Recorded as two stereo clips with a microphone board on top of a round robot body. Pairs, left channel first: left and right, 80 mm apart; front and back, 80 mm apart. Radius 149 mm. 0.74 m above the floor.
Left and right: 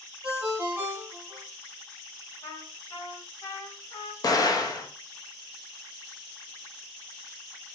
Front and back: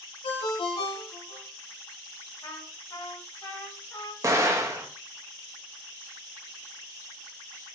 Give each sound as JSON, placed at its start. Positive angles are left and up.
{"t": 0.2, "sound": "a ringtone", "azimuth_deg": -15, "distance_m": 0.7}
{"t": 2.4, "sound": "a trumpet", "azimuth_deg": 45, "distance_m": 2.5}
{"t": 4.2, "sound": "an explosion", "azimuth_deg": 130, "distance_m": 1.1}